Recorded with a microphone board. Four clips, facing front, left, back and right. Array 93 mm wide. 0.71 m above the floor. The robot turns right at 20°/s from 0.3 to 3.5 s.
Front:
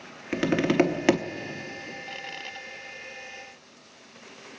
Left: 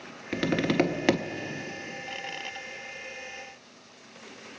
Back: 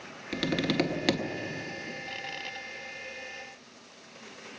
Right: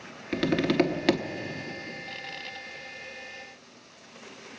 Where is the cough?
No cough in this recording.